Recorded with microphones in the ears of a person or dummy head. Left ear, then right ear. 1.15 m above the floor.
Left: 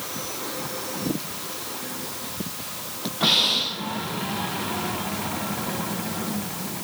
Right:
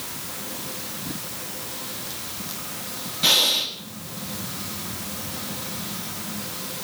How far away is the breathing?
About 2 m.